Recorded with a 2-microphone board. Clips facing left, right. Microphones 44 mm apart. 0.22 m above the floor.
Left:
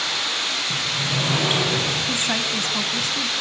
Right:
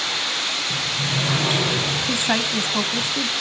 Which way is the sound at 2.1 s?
25° right (ahead or behind).